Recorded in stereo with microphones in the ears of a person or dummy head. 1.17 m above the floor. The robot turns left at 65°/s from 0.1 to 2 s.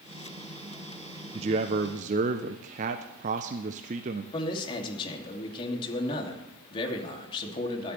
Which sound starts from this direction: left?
A man speaking, at 4.3 s.